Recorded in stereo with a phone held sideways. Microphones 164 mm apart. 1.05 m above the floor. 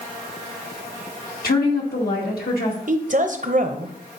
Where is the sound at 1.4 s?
70° left (ahead or behind), 1.8 m.